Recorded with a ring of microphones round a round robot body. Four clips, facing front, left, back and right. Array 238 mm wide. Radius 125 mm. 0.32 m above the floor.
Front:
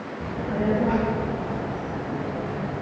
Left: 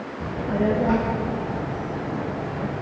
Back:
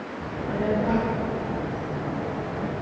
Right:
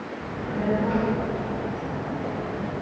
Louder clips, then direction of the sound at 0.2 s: Left 5 dB, front 2 dB; 70° left.